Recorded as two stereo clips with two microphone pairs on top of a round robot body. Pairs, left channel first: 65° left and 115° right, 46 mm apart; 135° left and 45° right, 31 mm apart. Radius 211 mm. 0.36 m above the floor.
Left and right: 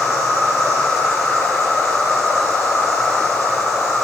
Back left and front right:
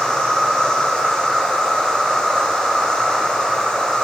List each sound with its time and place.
0.0 s an insect: 70° left, 4.5 m